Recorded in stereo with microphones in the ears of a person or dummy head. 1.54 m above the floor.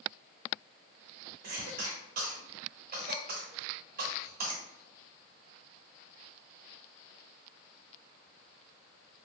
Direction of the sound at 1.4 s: 55° right (ahead or behind).